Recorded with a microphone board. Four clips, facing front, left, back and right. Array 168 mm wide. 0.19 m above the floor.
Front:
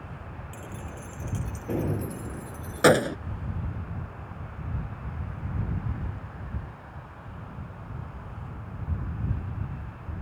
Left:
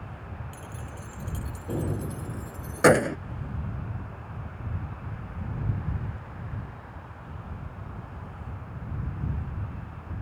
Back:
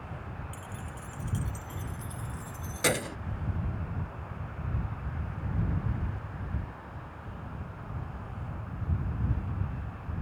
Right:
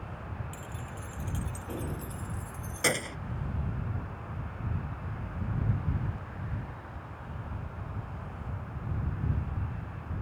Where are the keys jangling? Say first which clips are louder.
Left 1 dB, front 3 dB; 5° left; by 3.2 s 55° left.